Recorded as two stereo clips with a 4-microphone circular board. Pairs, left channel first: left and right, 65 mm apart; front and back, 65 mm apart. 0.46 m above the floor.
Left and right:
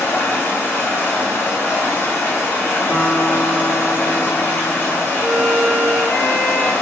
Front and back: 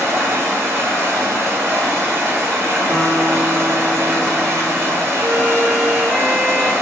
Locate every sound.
0.0 s running water: 130° left, 1.6 m
2.9 s a guitar: 60° right, 1.9 m
5.2 s a violin: 15° left, 1.2 m